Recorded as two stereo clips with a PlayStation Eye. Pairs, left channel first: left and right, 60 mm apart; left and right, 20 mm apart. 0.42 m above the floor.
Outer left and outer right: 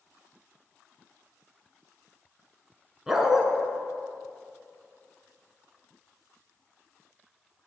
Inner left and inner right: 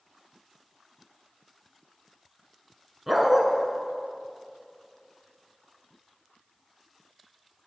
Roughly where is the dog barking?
Centre.